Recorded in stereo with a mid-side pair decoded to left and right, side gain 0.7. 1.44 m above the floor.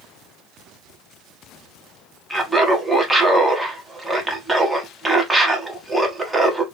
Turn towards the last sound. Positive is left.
turn(degrees=-5)